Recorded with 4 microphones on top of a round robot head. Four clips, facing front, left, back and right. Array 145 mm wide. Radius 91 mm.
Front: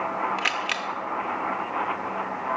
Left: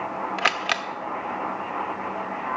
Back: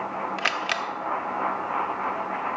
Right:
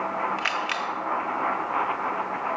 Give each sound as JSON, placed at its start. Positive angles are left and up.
{"t": 0.4, "sound": "a camera shutter", "azimuth_deg": 100, "distance_m": 0.7}